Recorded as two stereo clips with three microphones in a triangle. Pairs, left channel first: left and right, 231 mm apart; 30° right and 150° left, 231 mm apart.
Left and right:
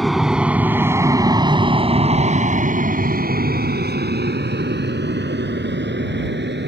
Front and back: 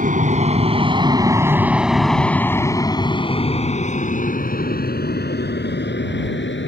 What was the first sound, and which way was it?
An aircraft, straight behind.